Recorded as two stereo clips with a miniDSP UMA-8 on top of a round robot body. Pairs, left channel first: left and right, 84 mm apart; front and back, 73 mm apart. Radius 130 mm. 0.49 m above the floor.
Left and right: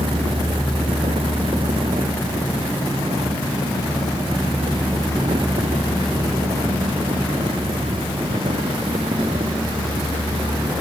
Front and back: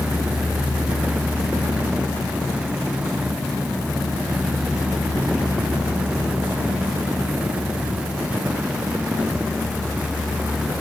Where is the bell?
I don't hear a bell.